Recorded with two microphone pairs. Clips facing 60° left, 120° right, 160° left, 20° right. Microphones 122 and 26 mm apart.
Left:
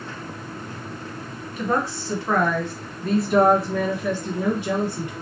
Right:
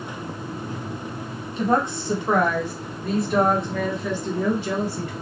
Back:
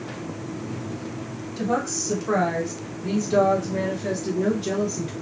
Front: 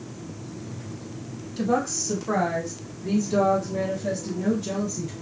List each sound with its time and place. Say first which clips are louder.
1.6 s a woman speaking: right 3 dB, front 1 dB; 90° right, 1.3 m; by 5.1 s 120° left, 1.6 m